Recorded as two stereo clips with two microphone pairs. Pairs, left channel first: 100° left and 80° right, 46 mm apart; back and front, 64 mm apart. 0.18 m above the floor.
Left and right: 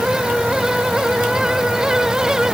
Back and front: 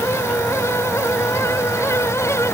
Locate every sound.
Only background noise.